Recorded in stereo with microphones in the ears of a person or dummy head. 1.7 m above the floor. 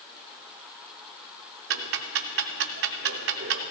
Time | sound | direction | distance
1.7 | ticking | 50° right (ahead or behind) | 0.5 m